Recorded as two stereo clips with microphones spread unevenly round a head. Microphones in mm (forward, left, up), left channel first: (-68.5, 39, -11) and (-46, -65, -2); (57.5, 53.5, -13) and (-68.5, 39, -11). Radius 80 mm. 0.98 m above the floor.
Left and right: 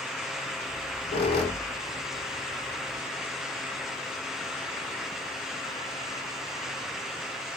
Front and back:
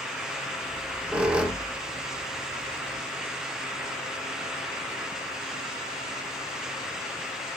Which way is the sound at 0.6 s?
105° left.